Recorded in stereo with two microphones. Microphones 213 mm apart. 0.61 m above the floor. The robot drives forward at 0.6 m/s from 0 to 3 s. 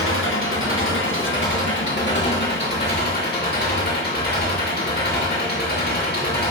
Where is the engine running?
85° left, 2.5 m; by 6.5 s 50° left (ahead or behind), 3 m.